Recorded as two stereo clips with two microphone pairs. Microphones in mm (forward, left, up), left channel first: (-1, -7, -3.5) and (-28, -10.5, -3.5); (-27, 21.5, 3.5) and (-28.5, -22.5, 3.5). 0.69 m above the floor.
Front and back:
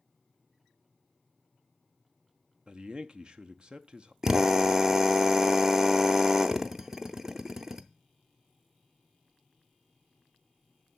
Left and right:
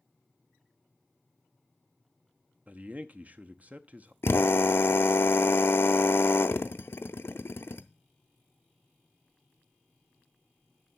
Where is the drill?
120° left, 0.5 m.